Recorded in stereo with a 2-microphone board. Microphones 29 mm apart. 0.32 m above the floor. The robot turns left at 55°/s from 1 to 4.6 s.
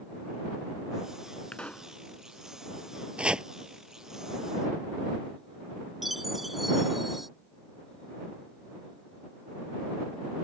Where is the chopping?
40° right (ahead or behind); by 3.5 s 25° right (ahead or behind).